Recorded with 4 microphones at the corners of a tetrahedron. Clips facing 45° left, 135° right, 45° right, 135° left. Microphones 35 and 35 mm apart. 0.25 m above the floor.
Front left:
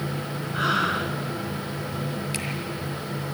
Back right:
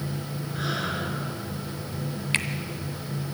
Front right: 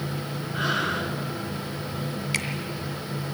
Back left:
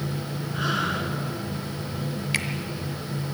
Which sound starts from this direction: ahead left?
Breathing, at 0.5 s.